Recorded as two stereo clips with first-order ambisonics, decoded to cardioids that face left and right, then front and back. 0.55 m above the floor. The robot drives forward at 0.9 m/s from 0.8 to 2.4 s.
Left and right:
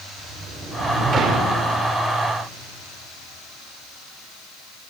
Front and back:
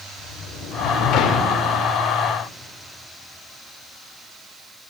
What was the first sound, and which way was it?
A sliding door, 25° right.